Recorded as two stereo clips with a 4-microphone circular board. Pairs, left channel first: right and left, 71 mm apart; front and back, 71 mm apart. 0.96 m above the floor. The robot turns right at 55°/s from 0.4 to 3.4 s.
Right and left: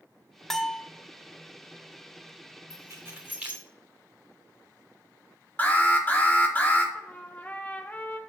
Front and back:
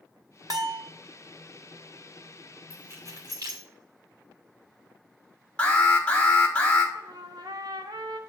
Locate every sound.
0.5 s a bell: 175° right, 0.7 m; by 0.9 s 150° right, 0.7 m
2.7 s keys jangling: 120° left, 2.5 m; by 3.6 s 160° left, 2.5 m
5.6 s an alarm: 55° right, 1.5 m
7.0 s a trumpet: 160° right, 0.8 m